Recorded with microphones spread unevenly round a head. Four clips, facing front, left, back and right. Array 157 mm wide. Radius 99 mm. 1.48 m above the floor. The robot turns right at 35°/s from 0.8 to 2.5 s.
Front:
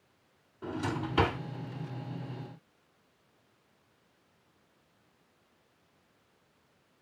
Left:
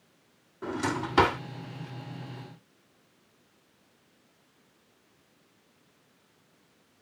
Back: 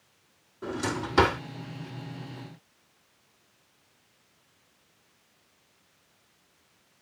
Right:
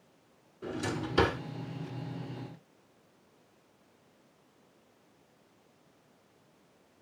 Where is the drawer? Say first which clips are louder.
Left 4 dB, back 3 dB; 95° left, 2.5 m; by 1.4 s 120° left, 2.5 m.